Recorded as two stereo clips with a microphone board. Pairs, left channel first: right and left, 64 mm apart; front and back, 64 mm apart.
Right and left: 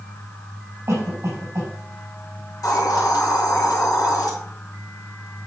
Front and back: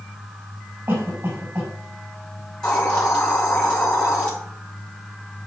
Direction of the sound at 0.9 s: 130° left.